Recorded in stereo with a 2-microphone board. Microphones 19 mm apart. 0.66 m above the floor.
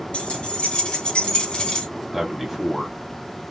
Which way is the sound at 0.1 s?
75° left (ahead or behind).